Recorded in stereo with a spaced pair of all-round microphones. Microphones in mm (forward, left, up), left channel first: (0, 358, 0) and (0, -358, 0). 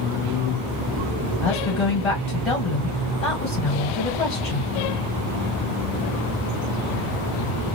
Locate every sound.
1.4 s a woman speaking: 50° left (ahead or behind), 1.6 m